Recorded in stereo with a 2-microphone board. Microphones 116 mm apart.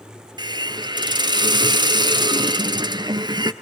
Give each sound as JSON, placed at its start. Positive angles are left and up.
{"t": 0.4, "sound": "a hiss", "side_deg": -40, "distance_m": 1.1}